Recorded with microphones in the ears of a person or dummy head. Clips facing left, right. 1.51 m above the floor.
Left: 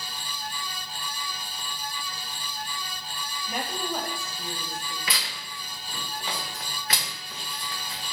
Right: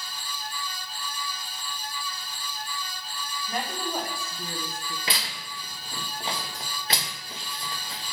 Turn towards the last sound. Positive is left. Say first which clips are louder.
# right 1 dB
turn(degrees=-25)  # may be behind; listen again after turning